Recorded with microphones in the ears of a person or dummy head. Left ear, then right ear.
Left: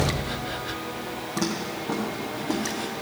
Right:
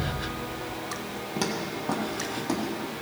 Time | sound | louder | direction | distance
1.4 | footsteps | left 1 dB | 45° right (ahead or behind) | 1.9 m